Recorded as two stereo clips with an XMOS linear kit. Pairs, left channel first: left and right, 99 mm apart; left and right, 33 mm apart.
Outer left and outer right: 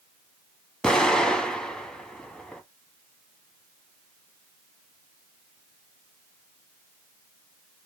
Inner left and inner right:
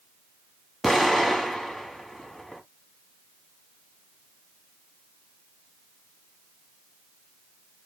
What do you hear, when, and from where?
0.8 s an explosion: 5° left (ahead or behind), 1.0 m